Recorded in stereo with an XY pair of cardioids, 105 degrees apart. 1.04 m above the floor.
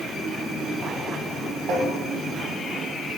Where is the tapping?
60° right, 2.5 m.